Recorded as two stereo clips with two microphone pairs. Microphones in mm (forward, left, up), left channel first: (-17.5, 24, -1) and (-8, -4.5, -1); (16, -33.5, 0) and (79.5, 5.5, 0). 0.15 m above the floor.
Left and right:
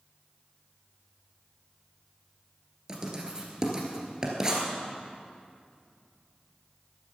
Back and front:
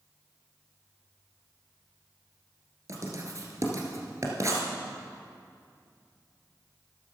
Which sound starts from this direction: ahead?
Writing, at 2.9 s.